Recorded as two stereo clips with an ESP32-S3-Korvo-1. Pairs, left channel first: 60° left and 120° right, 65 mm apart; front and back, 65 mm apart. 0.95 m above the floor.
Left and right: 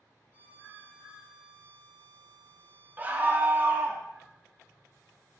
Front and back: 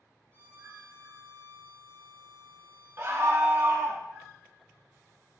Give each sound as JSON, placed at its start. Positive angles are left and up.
{"t": 0.3, "sound": "a violin", "azimuth_deg": 10, "distance_m": 1.2}
{"t": 3.0, "sound": "a scream", "azimuth_deg": -170, "distance_m": 0.5}